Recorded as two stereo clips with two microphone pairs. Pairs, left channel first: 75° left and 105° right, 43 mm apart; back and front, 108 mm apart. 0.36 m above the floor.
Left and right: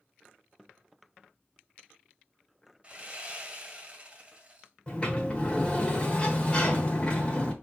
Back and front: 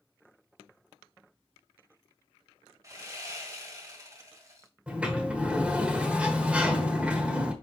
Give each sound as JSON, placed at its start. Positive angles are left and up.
{"t": 2.8, "sound": "sawing", "azimuth_deg": -45, "distance_m": 1.8}
{"t": 4.9, "sound": "a sliding door", "azimuth_deg": 65, "distance_m": 1.1}